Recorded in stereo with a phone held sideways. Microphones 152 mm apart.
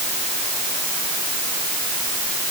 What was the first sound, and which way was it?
Only background noise.